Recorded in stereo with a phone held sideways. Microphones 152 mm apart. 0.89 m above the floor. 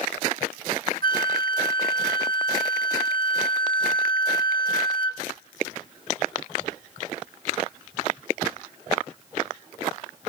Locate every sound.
1.0 s a flute: 70° right (ahead or behind), 0.7 m